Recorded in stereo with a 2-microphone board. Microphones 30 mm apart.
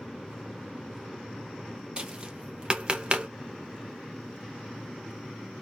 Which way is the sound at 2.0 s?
35° right (ahead or behind).